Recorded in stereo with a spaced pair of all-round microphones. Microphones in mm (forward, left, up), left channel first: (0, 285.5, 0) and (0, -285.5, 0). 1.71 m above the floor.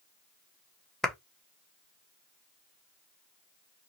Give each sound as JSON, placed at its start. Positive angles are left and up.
{"t": 1.0, "sound": "a clap", "side_deg": 0, "distance_m": 0.8}